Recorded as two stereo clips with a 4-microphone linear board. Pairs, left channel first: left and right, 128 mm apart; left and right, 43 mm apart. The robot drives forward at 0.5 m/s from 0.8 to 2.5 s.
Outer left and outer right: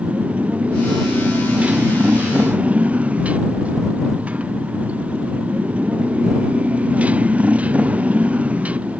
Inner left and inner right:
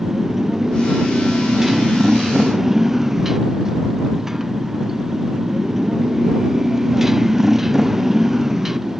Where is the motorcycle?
10° right (ahead or behind).